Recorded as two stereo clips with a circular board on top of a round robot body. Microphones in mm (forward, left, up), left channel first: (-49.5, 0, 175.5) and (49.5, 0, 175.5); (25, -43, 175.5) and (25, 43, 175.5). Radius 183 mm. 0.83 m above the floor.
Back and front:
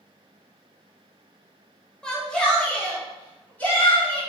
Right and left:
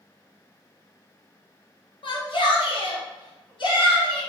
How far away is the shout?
About 1.5 m.